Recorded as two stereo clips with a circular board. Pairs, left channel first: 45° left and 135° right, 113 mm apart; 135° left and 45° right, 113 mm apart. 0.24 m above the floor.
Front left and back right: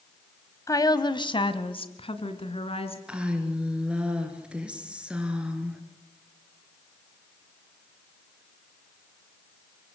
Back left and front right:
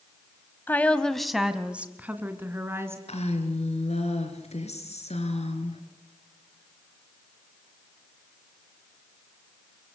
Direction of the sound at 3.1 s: 145° left.